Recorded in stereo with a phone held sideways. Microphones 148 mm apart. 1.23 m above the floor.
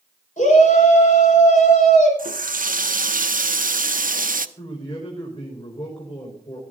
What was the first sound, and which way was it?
A shout, 60° left (ahead or behind).